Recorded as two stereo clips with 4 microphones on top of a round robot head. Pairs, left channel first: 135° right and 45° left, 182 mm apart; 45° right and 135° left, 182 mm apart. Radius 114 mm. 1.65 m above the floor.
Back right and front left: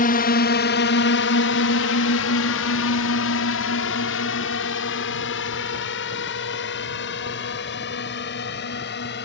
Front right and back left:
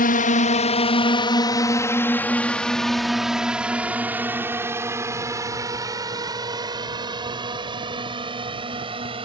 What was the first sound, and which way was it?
A drone, 90° right.